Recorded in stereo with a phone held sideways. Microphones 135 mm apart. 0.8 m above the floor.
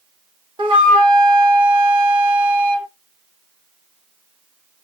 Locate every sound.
0.6 s a flute: 40° right (ahead or behind), 0.8 m